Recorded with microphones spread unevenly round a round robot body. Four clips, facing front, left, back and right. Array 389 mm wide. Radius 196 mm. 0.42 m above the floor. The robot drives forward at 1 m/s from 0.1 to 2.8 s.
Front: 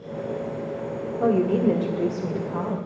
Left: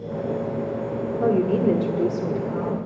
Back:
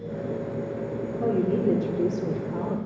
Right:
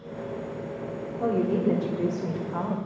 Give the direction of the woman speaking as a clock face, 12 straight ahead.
10 o'clock.